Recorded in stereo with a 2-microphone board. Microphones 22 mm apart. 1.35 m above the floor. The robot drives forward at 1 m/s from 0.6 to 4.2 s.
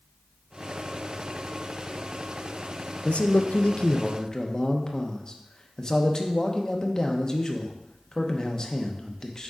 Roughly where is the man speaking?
Left.